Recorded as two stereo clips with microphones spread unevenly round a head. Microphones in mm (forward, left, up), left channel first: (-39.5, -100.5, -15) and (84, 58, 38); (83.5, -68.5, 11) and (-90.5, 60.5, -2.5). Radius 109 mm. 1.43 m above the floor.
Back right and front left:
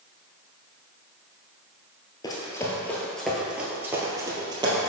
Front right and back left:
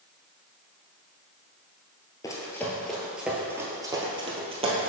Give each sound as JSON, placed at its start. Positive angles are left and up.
{"t": 2.2, "sound": "running footsteps", "azimuth_deg": -50, "distance_m": 1.4}